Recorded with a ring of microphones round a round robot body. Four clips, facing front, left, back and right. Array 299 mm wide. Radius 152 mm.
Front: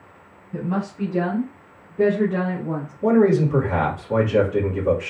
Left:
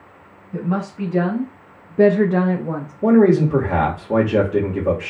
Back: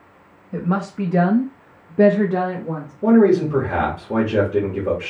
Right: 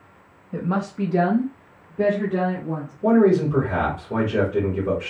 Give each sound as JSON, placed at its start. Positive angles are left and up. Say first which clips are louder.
{"t": 0.5, "sound": "a woman speaking", "louder": "left 1 dB, back 3 dB", "azimuth_deg": -155, "distance_m": 1.4}
{"t": 3.0, "sound": "a man speaking", "louder": "left 3 dB, back 3 dB", "azimuth_deg": 105, "distance_m": 1.5}